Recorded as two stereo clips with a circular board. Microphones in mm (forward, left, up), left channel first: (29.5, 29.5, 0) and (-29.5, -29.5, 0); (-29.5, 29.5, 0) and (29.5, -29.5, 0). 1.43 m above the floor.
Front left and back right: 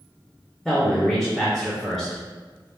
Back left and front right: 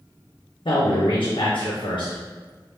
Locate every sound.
0.7 s a man speaking: 140° left, 1.0 m